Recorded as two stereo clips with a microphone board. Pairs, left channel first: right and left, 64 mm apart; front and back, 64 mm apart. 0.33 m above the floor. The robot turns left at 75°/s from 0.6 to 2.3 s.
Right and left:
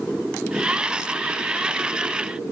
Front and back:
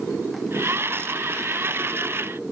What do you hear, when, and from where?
Only background noise.